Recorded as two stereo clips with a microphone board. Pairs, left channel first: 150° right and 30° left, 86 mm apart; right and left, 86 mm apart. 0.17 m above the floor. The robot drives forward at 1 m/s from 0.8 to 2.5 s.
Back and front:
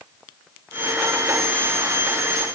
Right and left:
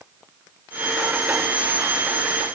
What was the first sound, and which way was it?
Only background noise.